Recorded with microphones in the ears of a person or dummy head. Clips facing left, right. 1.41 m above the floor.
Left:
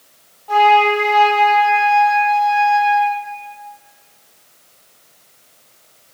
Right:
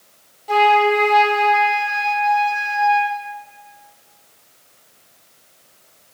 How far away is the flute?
About 0.5 m.